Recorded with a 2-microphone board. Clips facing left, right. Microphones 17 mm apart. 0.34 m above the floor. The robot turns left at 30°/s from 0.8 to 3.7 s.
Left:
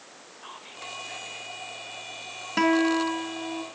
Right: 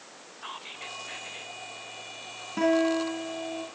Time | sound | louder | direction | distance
0.4 | whispering | right 2 dB | 25° right (ahead or behind) | 1.5 m
2.6 | a guitar | left 2 dB | 130° left | 3 m